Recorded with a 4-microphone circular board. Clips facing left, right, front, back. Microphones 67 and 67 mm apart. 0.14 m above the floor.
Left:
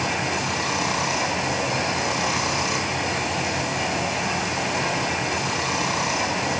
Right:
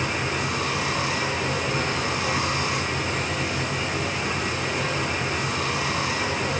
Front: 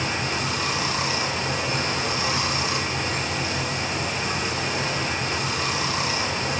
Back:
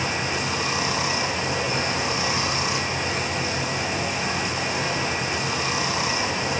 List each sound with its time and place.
0.0 s running water: 110° left, 5.5 m